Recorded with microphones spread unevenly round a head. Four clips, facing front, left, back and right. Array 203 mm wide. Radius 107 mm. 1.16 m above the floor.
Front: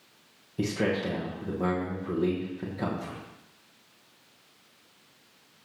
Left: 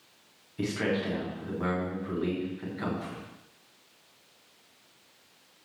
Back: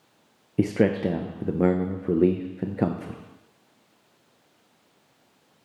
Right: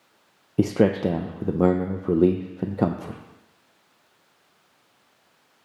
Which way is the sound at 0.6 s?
115° right.